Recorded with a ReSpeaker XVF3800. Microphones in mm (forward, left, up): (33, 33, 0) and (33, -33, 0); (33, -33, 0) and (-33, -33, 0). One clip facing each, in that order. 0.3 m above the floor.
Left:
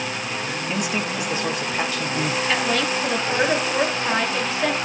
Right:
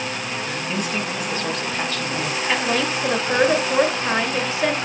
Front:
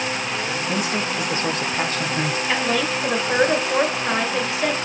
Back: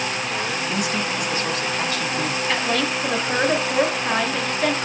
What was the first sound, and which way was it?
A man speaking, 20° left.